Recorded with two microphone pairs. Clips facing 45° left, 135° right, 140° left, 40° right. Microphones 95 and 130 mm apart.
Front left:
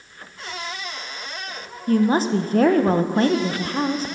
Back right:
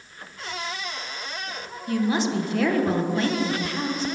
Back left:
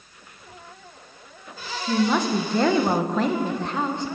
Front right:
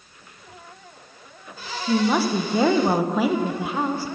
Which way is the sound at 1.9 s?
35° left.